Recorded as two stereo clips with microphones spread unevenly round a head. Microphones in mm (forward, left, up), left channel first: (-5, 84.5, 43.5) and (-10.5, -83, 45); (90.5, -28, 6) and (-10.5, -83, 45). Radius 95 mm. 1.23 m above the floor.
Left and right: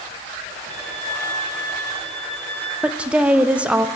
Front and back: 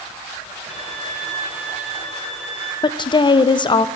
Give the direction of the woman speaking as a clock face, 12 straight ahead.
12 o'clock.